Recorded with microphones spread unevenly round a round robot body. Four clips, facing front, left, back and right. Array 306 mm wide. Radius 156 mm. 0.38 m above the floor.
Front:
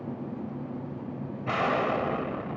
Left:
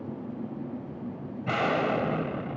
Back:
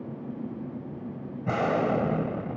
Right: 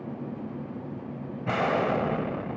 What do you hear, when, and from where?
1.4 s an explosion: 165° right, 1.7 m